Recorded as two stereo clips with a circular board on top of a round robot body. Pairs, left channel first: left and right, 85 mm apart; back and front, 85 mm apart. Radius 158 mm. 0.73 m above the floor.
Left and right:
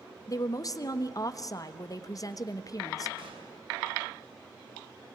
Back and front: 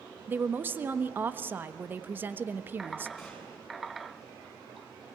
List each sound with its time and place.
0.3 s a woman speaking: 60° left, 1.4 m
3.2 s a gunshot: 90° right, 6.5 m